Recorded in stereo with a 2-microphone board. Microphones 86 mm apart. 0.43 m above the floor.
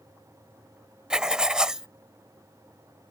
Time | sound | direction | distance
1.1 | writing | 10° right (ahead or behind) | ?